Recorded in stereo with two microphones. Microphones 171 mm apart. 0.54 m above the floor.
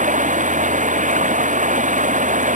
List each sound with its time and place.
0.0 s running water: 50° right (ahead or behind)